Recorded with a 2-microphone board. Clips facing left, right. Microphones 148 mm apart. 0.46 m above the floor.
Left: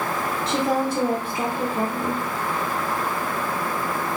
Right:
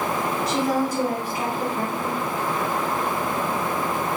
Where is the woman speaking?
25° left (ahead or behind), 1.0 m.